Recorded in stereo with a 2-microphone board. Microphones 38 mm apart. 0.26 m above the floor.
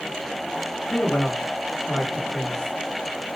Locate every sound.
0.9 s a man speaking: 30° left (ahead or behind), 1.5 m